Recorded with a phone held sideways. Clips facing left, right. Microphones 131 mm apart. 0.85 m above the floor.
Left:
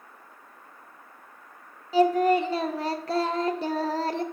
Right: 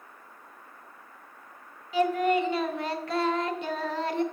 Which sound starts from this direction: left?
Singing, at 1.9 s.